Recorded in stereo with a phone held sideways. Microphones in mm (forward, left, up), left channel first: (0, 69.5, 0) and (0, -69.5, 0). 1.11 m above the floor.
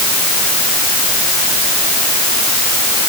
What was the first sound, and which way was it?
Only background noise.